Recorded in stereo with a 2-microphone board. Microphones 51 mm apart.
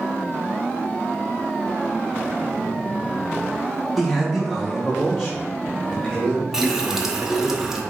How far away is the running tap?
About 0.6 m.